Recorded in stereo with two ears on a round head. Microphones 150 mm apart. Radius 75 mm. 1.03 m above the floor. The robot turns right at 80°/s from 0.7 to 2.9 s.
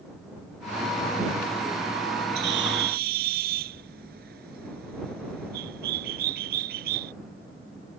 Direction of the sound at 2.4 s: 110° right.